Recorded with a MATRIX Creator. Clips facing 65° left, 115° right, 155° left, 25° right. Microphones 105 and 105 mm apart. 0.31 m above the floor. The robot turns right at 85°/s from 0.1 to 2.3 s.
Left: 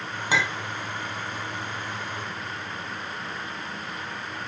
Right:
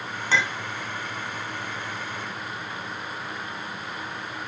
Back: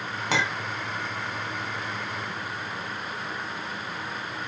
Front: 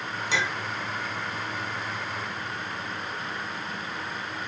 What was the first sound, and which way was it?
A clink, 145° left.